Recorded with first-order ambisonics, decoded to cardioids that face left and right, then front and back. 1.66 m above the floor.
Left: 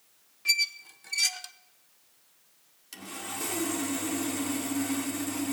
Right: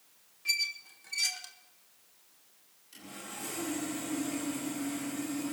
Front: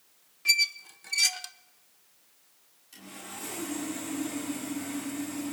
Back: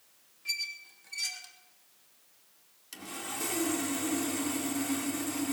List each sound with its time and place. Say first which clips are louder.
0.5 s a squeak: left 5 dB, front 10 dB; 30° left, 0.6 m
2.9 s sawing: left 6 dB, back 4 dB; 130° left, 2.0 m